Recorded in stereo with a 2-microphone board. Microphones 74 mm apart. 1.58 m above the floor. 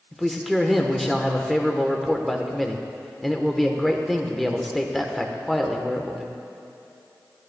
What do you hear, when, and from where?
0.1 s a man speaking: centre (ahead or behind), 1.1 m